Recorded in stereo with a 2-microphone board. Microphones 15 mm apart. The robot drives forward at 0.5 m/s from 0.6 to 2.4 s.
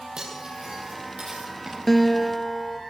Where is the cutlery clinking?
50° right (ahead or behind), 7 m; by 1.8 s 45° right (ahead or behind), 7.5 m.